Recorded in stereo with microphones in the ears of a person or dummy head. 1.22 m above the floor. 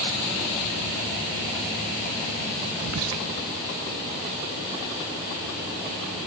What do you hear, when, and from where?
2.8 s whispering: 85° right, 0.5 m